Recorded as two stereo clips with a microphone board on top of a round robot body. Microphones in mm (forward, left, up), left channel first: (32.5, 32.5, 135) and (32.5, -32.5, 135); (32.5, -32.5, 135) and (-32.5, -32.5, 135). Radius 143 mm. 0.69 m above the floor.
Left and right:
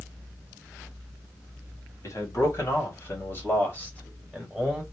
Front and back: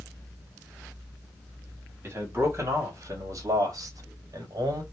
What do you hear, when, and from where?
2.0 s a man speaking: 120° left, 2 m; by 4.8 s 175° left, 1.8 m